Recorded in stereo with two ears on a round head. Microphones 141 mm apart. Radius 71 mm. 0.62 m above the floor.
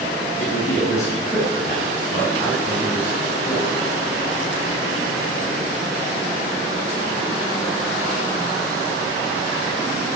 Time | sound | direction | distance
0.4 | a man speaking | 25° left (ahead or behind) | 3.5 m